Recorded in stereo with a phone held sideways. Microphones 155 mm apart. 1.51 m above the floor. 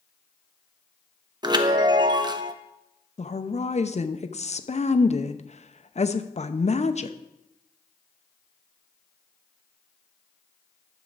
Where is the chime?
30° right (ahead or behind), 0.7 m.